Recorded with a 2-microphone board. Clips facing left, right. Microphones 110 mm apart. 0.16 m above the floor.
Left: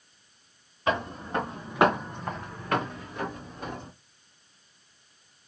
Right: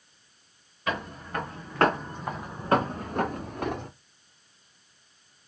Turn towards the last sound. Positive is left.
turn(degrees=-85)